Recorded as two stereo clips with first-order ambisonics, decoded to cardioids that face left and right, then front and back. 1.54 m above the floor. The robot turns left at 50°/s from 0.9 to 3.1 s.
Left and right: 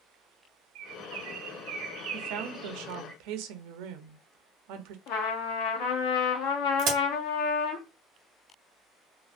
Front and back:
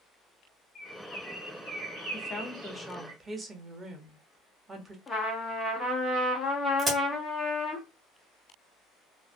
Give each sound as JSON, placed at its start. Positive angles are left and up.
{"t": 0.8, "sound": "a bird", "azimuth_deg": -60, "distance_m": 2.0}
{"t": 2.1, "sound": "a woman speaking", "azimuth_deg": -55, "distance_m": 0.8}
{"t": 5.1, "sound": "a trumpet", "azimuth_deg": 80, "distance_m": 0.9}
{"t": 6.8, "sound": "a crack", "azimuth_deg": -115, "distance_m": 1.7}